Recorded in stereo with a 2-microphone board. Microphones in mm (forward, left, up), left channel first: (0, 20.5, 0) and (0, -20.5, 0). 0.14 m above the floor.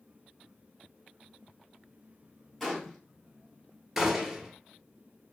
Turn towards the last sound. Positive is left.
turn(degrees=-5)  # may be behind; listen again after turning